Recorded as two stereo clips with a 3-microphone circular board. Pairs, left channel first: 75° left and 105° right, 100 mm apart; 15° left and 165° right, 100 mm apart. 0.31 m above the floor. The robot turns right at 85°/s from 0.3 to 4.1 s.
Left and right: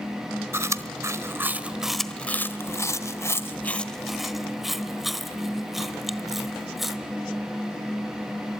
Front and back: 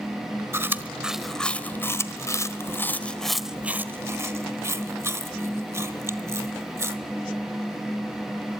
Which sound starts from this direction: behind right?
Chewing, at 0.5 s.